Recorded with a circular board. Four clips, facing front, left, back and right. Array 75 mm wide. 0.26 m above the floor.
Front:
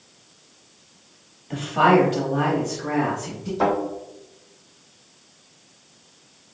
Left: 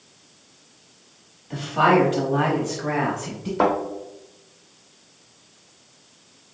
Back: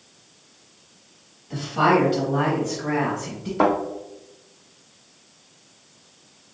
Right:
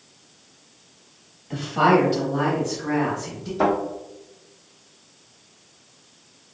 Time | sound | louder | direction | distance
1.5 | a woman speaking | even, front 2 dB | 5° right | 1.1 m
3.6 | a thud | even, back 2 dB | 135° left | 2.0 m